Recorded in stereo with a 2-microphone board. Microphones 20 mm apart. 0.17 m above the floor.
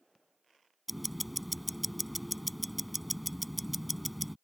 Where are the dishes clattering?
No dishes clattering in this recording.